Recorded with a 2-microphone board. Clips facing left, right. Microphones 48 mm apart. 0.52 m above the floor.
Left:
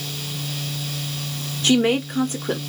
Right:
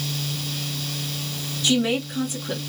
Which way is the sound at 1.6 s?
45° left (ahead or behind).